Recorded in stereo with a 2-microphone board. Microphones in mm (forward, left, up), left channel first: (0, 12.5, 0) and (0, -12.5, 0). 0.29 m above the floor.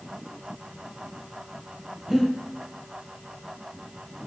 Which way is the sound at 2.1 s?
25° right (ahead or behind).